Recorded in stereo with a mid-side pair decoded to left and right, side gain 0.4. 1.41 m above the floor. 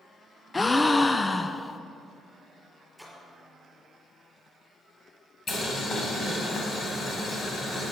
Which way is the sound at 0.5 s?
20° left.